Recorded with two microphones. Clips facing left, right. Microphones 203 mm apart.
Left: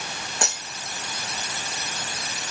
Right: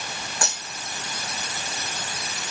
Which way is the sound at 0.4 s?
20° left (ahead or behind).